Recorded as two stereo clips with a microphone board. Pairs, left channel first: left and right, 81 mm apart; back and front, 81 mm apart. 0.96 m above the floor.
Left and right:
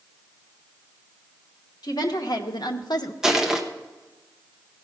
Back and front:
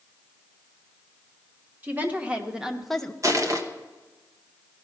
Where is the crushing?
10° right, 1.0 m.